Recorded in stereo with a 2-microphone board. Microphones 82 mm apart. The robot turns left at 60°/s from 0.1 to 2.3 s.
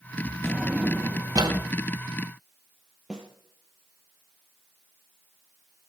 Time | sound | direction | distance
0.4 | a drawer | 5° left (ahead or behind) | 2 m
3.1 | a snare drum | 10° right (ahead or behind) | 3 m